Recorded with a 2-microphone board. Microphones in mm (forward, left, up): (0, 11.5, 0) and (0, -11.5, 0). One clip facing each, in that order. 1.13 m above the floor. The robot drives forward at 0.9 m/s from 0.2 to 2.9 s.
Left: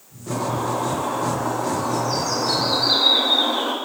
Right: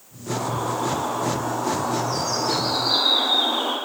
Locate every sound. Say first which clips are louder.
0.3 s a bird: left 2 dB; 70° left (ahead or behind), 9 m; by 3.7 s 80° left, 8.5 m